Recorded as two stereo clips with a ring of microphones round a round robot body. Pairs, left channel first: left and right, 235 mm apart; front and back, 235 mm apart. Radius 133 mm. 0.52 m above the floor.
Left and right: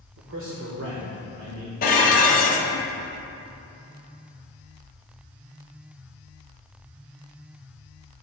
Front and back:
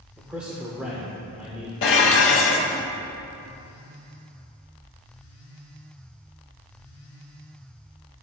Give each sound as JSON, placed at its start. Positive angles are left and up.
{"t": 0.2, "sound": "a man speaking", "azimuth_deg": -95, "distance_m": 1.3}
{"t": 1.8, "sound": "dishes clattering", "azimuth_deg": 35, "distance_m": 1.1}